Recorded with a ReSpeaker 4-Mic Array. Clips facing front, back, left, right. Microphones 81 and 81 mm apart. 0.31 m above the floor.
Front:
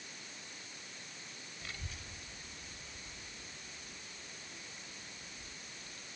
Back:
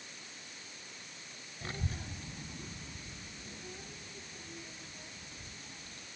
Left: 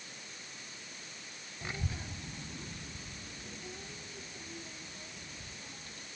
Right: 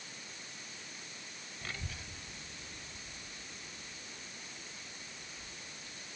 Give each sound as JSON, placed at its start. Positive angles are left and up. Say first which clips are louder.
{"t": 1.6, "sound": "a child speaking", "louder": "back 9 dB, left 5 dB", "azimuth_deg": 160}